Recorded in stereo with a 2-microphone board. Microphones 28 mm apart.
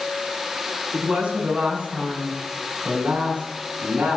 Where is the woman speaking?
40° right (ahead or behind), 8 m; by 4.2 s 55° right (ahead or behind), 7.5 m.